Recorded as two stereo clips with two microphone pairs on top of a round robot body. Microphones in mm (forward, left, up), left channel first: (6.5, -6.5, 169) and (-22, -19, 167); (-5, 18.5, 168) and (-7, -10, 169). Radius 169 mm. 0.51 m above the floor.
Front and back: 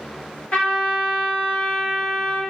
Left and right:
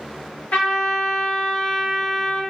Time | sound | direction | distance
0.5 | a trumpet | 80° left | 1.1 m